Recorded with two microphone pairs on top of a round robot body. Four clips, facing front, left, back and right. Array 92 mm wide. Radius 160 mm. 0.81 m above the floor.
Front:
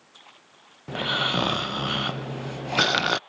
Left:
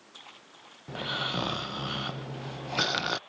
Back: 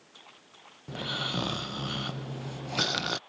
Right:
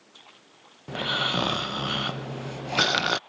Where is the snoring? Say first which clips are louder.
Right 5 dB, front 8 dB; 35° right.